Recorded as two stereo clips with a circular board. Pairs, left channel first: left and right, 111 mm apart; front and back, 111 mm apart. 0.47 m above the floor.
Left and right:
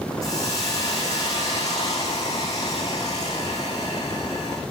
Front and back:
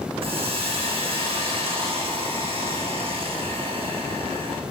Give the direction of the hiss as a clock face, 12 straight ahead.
7 o'clock.